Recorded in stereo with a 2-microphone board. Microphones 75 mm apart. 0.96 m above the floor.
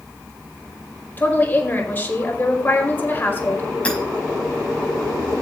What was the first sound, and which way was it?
A woman speaking, 25° left (ahead or behind).